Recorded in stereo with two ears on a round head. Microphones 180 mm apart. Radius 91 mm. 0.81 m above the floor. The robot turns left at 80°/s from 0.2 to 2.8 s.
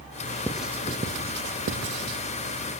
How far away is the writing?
About 1.1 m.